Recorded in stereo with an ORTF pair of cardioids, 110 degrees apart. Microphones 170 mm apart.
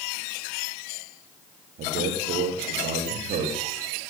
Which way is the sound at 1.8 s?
60° right.